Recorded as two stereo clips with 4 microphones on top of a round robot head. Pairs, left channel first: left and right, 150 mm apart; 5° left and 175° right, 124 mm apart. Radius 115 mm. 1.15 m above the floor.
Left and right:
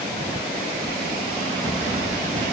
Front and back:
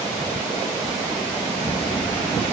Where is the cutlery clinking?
I don't hear cutlery clinking.